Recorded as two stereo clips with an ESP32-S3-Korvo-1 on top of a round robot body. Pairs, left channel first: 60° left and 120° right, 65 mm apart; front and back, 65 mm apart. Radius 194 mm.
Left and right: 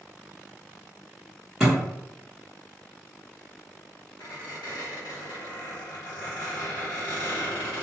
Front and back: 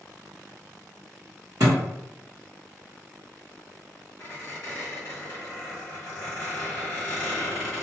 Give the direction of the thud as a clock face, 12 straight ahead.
7 o'clock.